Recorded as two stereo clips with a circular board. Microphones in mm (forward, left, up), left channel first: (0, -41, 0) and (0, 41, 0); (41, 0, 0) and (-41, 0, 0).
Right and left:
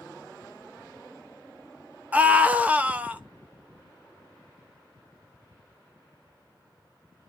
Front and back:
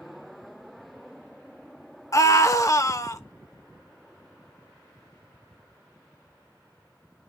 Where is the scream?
25° left, 1.0 m.